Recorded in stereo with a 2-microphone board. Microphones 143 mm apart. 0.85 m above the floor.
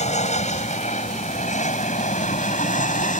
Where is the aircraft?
55° left (ahead or behind); by 3.2 s 65° left (ahead or behind).